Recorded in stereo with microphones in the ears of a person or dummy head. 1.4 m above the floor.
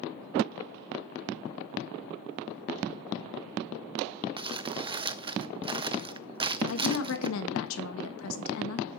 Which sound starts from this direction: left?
A woman speaking, at 6.7 s.